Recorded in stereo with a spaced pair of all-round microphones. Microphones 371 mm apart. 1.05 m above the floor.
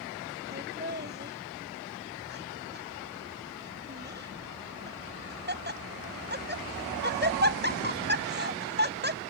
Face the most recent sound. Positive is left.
turn(degrees=-30)  # may be behind; listen again after turning